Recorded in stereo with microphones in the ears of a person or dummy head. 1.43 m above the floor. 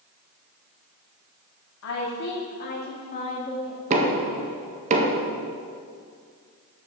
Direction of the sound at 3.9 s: 45° right (ahead or behind).